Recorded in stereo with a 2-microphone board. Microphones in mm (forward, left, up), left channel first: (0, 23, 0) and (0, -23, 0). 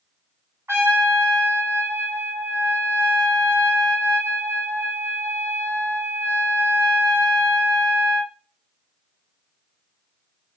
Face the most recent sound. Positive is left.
turn(degrees=-75)  # may be behind; listen again after turning